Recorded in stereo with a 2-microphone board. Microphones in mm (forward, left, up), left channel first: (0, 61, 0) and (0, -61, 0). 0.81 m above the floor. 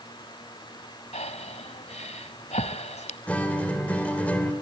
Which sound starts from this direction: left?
Breathing, at 1.1 s.